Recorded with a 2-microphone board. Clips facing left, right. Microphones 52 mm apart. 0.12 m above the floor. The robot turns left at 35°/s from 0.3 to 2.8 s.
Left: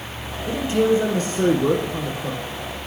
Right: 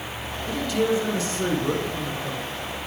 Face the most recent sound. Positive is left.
turn(degrees=70)